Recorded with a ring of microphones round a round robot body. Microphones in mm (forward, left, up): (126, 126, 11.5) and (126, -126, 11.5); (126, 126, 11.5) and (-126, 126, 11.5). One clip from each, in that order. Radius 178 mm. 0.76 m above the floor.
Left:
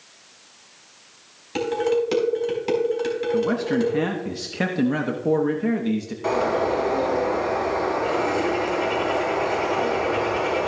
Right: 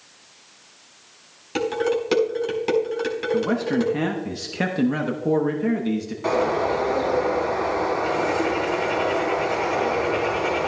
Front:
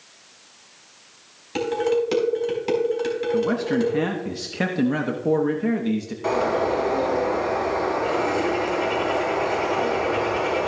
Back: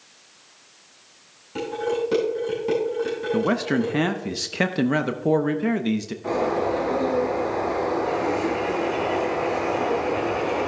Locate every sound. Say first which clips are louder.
1.6 s dishes clattering: left 1 dB, front 4 dB; 25° right, 4 m
3.3 s a man speaking: right 1 dB, back 1 dB; straight behind, 0.6 m
6.2 s a bird: even, front 2 dB; 15° right, 5.5 m